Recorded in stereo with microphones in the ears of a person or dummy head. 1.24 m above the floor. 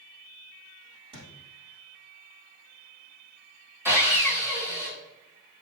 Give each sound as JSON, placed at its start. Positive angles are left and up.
{"t": 1.1, "sound": "a thud", "side_deg": -30, "distance_m": 3.0}
{"t": 3.9, "sound": "sawing", "side_deg": -15, "distance_m": 1.9}